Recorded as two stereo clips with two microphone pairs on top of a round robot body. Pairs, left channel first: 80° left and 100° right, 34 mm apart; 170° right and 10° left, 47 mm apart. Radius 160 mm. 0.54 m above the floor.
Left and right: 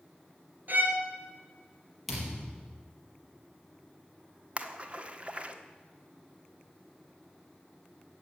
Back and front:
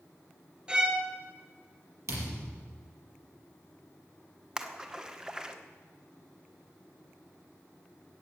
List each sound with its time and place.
0.7 s a violin: 60° right, 2.0 m
2.1 s a thud: 10° right, 4.5 m
4.6 s a splash: 60° right, 1.4 m